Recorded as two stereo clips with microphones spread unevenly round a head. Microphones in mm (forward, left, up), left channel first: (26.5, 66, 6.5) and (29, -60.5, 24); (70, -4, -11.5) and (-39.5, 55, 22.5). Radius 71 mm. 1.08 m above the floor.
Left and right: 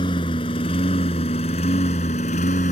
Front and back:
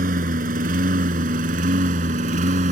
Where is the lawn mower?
155° left; by 2.7 s 135° left.